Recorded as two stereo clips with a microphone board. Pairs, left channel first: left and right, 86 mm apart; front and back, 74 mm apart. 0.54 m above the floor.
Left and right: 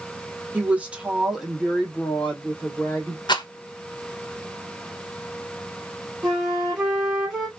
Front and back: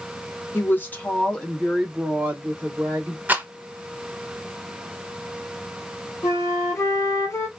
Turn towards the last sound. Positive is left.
turn(degrees=-15)